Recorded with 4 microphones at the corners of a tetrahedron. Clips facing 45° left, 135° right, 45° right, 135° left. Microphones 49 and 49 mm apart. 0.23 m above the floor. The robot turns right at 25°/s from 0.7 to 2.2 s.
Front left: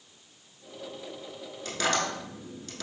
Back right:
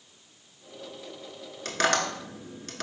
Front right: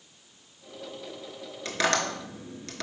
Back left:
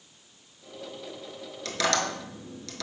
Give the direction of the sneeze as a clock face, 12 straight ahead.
No sneeze in this recording.